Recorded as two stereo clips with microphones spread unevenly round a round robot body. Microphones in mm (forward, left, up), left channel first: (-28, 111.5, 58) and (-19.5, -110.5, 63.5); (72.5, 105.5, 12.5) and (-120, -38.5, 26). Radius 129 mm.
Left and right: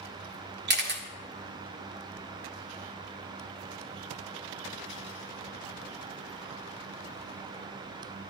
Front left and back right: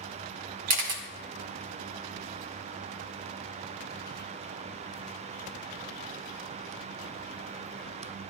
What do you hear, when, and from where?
0.7 s a camera shutter: 125° right, 1.7 m